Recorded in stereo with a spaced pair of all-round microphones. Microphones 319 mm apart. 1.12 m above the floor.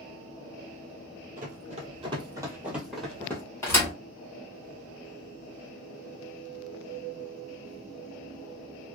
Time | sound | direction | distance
1.4 | running footsteps | 25° right (ahead or behind) | 1.2 m
3.6 | a thud | 10° left (ahead or behind) | 1.4 m